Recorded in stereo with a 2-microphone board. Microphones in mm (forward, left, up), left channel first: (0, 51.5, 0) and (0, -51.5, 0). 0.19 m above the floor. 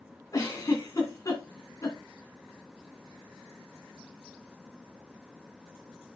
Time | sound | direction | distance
0.3 | a giggle | 35° left (ahead or behind) | 2.5 m